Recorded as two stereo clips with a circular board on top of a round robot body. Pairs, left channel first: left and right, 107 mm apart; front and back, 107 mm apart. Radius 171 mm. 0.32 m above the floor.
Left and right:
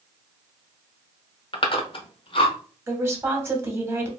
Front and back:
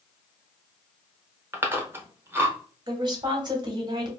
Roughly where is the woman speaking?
Behind right.